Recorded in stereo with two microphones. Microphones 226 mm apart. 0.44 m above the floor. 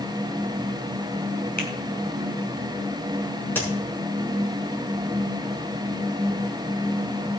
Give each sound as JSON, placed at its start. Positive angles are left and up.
{"t": 1.6, "sound": "a finger snap", "side_deg": 45, "distance_m": 3.0}
{"t": 3.5, "sound": "a crack", "side_deg": 10, "distance_m": 6.0}